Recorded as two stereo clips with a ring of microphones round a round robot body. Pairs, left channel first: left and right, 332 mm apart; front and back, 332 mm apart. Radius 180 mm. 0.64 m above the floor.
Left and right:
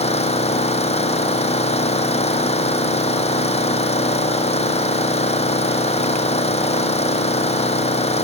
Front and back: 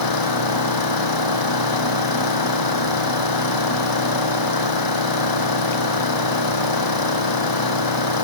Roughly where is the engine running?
Ahead.